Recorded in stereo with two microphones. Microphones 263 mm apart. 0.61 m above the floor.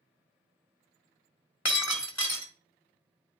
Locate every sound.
1.6 s breaking glass: 85° left, 1.6 m